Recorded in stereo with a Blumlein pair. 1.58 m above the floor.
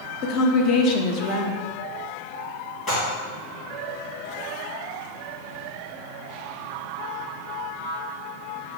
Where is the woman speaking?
35° left, 0.5 m.